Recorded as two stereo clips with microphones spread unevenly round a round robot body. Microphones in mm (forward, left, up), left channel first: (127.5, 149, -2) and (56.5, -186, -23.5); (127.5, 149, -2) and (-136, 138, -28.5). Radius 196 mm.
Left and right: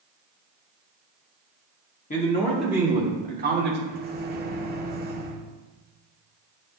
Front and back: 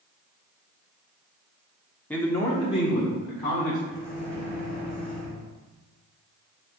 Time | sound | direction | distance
2.1 | a man speaking | 95° left | 1.1 m
3.9 | a microwave | 95° right | 1.0 m